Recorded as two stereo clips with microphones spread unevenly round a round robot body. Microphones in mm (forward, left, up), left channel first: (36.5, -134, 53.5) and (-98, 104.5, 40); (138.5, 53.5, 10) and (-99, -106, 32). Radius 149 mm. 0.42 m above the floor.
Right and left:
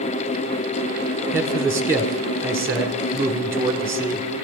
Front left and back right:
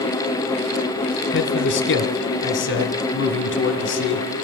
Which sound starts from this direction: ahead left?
A man speaking, at 1.3 s.